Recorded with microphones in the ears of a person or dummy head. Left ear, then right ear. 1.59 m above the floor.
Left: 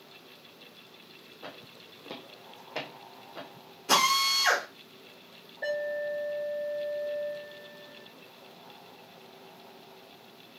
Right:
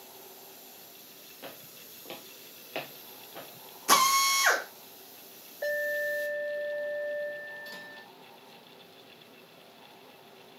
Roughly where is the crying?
I don't hear crying.